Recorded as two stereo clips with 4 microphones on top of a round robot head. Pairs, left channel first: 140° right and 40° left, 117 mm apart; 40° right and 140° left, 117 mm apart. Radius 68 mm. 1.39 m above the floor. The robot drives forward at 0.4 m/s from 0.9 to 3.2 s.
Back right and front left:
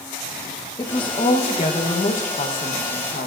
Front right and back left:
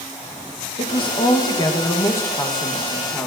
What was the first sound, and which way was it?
A woman speaking, 85° right.